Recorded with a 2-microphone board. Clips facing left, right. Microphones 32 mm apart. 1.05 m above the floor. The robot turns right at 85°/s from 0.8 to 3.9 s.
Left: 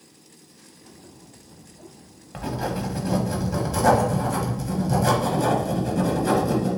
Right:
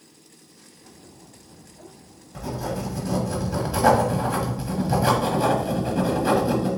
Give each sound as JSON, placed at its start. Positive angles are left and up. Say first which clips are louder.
{"t": 2.3, "sound": "writing", "louder": "left 2 dB", "azimuth_deg": 80, "distance_m": 1.3}